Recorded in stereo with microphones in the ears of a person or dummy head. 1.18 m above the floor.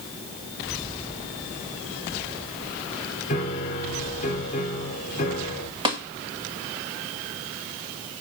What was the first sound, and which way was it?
A piano, 35° left (ahead or behind).